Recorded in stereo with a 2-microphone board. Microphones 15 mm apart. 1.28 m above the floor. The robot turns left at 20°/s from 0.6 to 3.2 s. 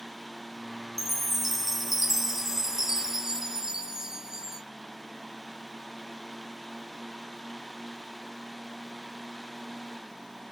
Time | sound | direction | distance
1.0 | a chime | 10° left | 0.7 m